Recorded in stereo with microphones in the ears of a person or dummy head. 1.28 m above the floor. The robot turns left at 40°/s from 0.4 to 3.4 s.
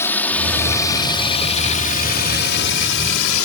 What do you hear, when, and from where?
0.0 s a drone: 10° left (ahead or behind); by 3.4 s 70° left (ahead or behind)